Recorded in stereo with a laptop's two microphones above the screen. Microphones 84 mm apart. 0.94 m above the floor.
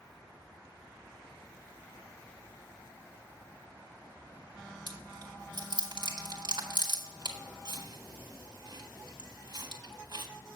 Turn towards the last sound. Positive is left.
turn(degrees=-55)  # may be behind; listen again after turning